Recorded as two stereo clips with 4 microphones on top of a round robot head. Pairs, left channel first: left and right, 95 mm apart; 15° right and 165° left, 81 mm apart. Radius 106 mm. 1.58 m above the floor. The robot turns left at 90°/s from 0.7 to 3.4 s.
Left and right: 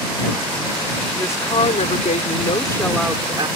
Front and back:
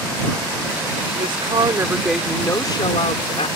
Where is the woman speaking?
165° left; by 3.5 s 35° right.